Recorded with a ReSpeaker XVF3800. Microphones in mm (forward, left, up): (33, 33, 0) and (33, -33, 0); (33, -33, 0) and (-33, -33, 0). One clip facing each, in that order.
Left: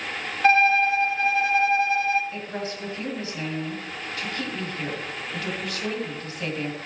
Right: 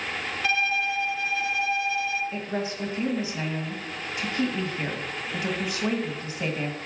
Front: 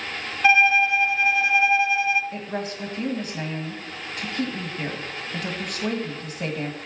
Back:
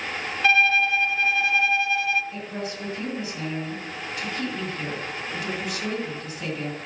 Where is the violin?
65° left, 0.7 m.